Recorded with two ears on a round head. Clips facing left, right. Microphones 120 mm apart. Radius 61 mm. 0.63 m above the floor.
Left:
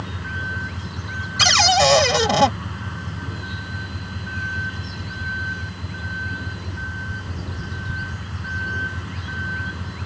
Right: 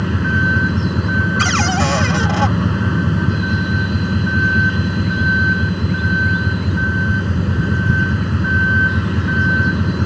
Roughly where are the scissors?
No scissors in this recording.